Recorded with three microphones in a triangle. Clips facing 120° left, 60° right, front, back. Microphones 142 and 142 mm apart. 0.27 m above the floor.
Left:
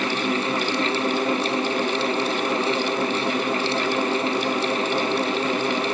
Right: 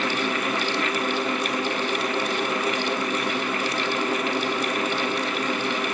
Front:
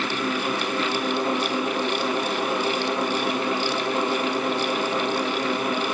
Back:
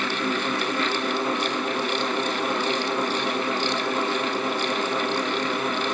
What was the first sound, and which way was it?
Only background noise.